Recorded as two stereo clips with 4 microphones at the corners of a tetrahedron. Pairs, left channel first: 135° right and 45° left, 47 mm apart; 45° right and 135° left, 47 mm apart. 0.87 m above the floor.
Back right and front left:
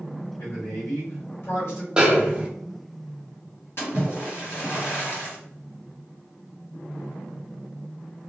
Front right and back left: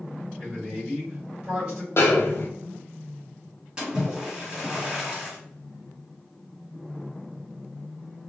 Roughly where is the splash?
Behind.